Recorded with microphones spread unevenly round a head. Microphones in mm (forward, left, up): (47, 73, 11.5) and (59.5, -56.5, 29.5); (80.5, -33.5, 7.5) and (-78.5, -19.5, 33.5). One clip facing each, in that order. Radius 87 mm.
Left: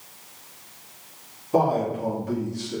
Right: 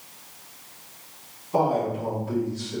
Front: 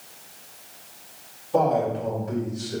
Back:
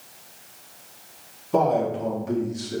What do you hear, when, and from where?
1.5 s a man speaking: 155° left, 3 m; by 2.8 s 140° left, 2.0 m